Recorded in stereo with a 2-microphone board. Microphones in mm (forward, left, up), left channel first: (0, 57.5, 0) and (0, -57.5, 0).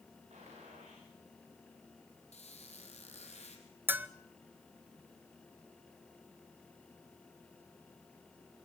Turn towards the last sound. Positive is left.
turn(degrees=-15)  # may be behind; listen again after turning